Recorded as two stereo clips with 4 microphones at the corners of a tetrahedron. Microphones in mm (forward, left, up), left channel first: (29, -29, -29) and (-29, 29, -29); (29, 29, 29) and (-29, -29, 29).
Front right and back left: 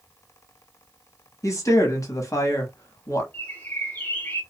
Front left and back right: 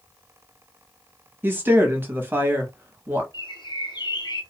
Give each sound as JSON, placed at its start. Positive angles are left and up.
{"t": 1.4, "sound": "a woman speaking", "azimuth_deg": -75, "distance_m": 0.9}
{"t": 3.3, "sound": "a bird", "azimuth_deg": 20, "distance_m": 0.8}